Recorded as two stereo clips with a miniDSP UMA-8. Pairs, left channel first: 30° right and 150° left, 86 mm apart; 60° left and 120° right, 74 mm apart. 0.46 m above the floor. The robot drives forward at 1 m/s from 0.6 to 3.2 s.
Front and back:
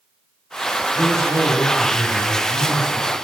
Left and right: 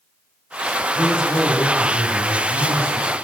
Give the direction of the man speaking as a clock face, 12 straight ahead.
9 o'clock.